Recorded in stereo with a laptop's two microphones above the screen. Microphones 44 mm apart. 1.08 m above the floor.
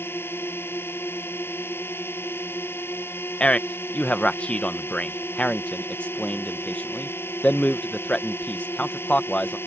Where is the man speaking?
30° left (ahead or behind).